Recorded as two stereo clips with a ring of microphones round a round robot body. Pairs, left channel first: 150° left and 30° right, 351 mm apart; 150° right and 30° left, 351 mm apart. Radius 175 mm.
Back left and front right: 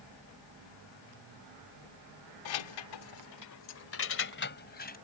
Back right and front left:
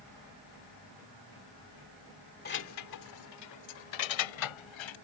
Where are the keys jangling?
145° left; by 5.0 s 145° right.